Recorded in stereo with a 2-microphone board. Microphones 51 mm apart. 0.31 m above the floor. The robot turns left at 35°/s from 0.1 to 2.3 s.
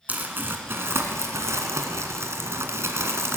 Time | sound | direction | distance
0.1 | crumpling | 35° right | 1.4 m